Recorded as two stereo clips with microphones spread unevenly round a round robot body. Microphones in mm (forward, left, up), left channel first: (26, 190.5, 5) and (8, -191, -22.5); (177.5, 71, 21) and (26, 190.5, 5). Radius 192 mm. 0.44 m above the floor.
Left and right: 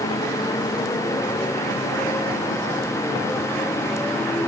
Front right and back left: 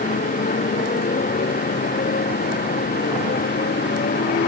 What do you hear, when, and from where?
0.0 s a motorcycle: 5° left; by 4.5 s straight ahead